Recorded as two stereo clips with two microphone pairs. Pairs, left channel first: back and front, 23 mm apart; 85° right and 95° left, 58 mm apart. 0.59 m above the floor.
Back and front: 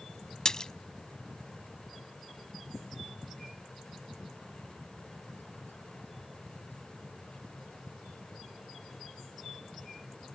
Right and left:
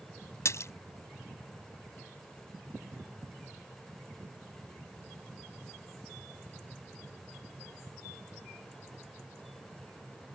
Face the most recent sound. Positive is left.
turn(degrees=-115)